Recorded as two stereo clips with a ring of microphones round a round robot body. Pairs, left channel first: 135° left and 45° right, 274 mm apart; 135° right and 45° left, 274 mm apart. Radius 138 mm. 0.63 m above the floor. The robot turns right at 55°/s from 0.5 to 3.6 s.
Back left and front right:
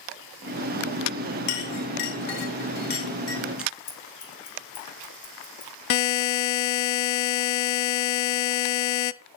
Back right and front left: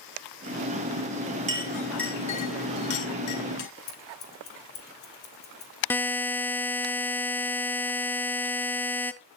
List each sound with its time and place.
1.5 s a clink: 110° left, 1.9 m; by 3.7 s 130° right, 1.9 m
3.9 s scissors: 170° left, 7 m
5.9 s a buzzer: 145° left, 0.5 m